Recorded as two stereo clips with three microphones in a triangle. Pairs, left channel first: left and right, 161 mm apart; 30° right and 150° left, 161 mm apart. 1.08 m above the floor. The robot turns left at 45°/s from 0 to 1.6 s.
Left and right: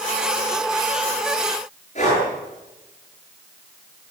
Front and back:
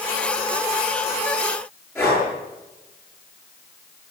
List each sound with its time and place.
1.9 s breathing: 45° left, 9 m